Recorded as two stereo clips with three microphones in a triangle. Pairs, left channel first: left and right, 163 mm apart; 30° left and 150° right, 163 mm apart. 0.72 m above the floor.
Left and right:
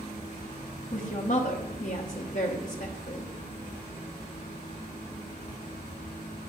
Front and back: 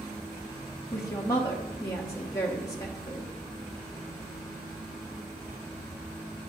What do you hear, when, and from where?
0.9 s a woman speaking: 95° left, 0.8 m